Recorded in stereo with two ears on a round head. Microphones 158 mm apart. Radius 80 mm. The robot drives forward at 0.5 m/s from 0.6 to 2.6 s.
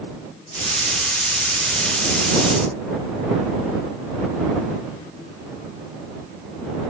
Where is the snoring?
I don't hear snoring.